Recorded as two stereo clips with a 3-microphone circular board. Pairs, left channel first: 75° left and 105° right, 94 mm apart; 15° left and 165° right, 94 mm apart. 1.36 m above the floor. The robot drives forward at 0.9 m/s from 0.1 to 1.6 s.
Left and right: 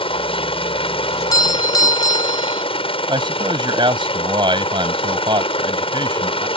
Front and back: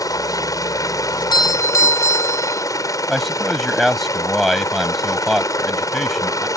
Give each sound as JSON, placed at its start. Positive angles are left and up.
{"t": 0.0, "sound": "a helicopter", "azimuth_deg": 65}
{"t": 1.1, "sound": "a doorbell", "azimuth_deg": 30}
{"t": 3.1, "sound": "a man speaking", "azimuth_deg": -75}